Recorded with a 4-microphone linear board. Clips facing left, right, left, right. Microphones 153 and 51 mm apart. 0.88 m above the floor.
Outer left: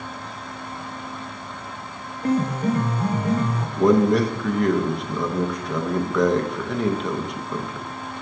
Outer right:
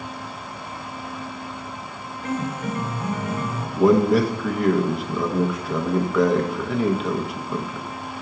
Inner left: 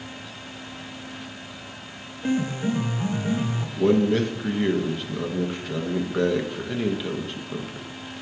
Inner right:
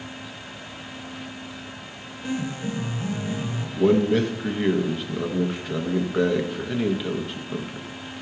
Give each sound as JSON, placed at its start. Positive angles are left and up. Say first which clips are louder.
{"t": 2.2, "sound": "a piano", "louder": "outer left 6 dB, inner left 4 dB", "side_deg": 35, "distance_m": 0.6}
{"t": 3.8, "sound": "a man speaking", "louder": "outer right 1 dB, inner right 1 dB", "side_deg": -5, "distance_m": 0.5}